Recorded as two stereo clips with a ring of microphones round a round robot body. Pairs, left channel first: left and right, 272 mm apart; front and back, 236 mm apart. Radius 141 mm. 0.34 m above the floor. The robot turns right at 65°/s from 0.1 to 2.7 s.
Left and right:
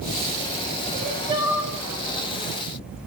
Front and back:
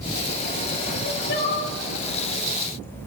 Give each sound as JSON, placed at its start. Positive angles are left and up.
{"t": 0.9, "sound": "crying", "azimuth_deg": -50, "distance_m": 0.8}